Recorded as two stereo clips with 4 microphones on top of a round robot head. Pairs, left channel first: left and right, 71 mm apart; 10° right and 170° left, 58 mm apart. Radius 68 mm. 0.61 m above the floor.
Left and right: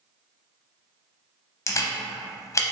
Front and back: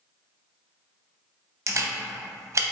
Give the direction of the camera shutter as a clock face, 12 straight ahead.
7 o'clock.